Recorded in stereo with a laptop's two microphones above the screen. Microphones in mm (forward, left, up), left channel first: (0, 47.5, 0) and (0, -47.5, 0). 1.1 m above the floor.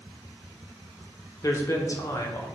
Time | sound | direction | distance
1.4 | a man speaking | 35° left (ahead or behind) | 0.6 m